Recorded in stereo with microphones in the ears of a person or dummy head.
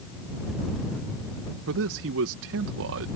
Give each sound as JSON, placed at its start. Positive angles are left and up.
{"t": 1.7, "sound": "a man speaking", "side_deg": -70}